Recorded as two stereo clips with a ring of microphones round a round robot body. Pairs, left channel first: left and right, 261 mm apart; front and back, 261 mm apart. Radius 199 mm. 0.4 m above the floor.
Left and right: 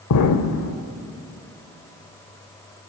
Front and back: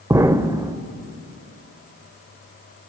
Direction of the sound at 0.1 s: 100° left.